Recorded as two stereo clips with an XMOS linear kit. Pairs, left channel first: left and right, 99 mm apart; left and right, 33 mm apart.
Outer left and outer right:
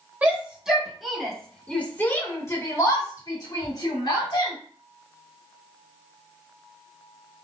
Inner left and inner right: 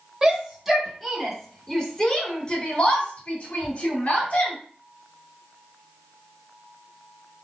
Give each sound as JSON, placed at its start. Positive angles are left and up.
{"t": 0.2, "sound": "a shout", "side_deg": -15, "distance_m": 1.9}